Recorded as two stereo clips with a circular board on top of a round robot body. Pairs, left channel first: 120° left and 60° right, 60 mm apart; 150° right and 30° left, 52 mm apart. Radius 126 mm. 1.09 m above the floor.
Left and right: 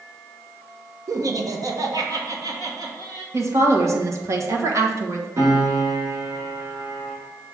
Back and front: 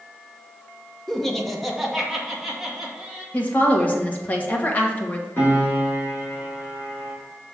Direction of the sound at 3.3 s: 95° right.